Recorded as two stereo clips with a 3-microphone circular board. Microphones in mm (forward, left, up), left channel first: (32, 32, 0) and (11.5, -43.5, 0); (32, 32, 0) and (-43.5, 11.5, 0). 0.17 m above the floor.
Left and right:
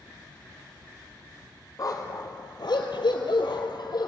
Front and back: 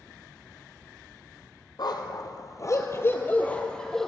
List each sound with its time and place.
1.8 s a dog barking: 35° left, 2.5 m; by 4.1 s 100° left, 2.5 m